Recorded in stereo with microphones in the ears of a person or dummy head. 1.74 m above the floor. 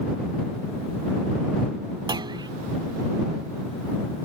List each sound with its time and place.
2.1 s a clunk: 35° right (ahead or behind)